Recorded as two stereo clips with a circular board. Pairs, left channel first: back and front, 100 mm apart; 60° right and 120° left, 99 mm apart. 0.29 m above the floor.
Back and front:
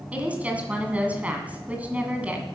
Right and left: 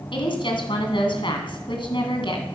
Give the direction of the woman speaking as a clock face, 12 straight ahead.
3 o'clock.